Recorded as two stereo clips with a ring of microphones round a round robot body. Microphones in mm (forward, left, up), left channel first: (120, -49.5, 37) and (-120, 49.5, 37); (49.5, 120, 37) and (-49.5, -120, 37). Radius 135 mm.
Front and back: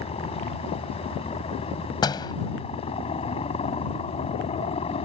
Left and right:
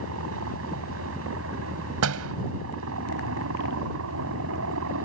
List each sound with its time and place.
0.0 s a helicopter: 90° right
2.0 s a door slam: 95° right